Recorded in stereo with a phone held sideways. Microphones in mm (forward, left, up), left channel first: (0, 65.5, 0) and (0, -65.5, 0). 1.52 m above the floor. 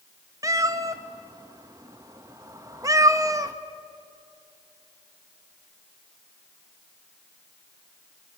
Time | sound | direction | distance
0.4 | a cat meowing | 25° right (ahead or behind) | 0.9 m